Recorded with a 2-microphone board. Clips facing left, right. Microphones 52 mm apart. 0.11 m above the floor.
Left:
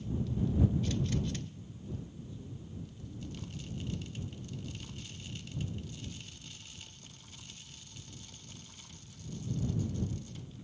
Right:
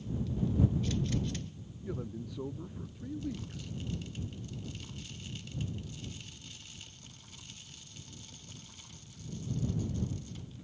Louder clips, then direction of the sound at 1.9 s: Right 6 dB; 80° right.